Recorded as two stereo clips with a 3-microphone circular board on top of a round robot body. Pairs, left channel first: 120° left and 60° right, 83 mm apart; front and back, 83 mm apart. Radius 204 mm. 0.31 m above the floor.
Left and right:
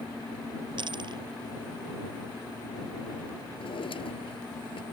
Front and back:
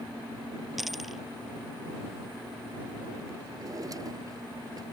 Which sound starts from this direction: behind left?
A drawer, at 3.6 s.